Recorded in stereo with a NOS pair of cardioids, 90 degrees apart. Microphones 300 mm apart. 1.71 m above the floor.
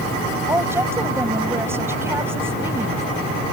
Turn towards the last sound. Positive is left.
turn(degrees=-10)